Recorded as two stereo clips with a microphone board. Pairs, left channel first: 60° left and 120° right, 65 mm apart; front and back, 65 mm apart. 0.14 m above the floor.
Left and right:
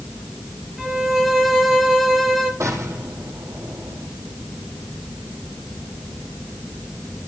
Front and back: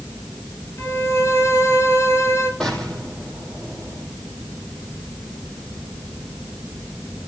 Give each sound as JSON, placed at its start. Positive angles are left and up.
{"t": 0.8, "sound": "a violin", "azimuth_deg": -30, "distance_m": 3.0}
{"t": 2.6, "sound": "an explosion", "azimuth_deg": -75, "distance_m": 5.0}